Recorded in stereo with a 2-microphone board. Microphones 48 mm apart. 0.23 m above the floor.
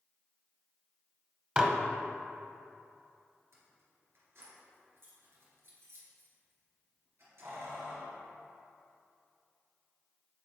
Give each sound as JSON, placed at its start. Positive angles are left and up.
{"t": 1.6, "sound": "dishes clattering", "side_deg": -20, "distance_m": 0.6}
{"t": 3.5, "sound": "keys jangling", "side_deg": -60, "distance_m": 2.0}